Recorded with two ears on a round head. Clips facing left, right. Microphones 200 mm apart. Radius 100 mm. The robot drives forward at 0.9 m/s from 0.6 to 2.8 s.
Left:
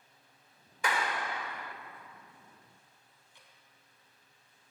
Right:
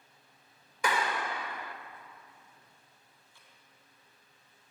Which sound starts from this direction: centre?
Dripping, at 3.3 s.